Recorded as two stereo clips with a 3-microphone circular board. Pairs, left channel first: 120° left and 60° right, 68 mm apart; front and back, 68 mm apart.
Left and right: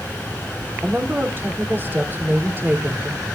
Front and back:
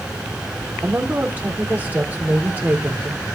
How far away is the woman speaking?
About 3 m.